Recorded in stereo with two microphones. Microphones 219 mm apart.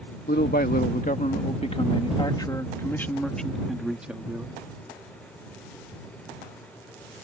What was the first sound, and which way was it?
A man speaking, 55° left (ahead or behind).